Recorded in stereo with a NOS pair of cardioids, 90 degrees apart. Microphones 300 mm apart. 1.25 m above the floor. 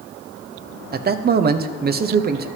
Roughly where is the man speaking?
Ahead right.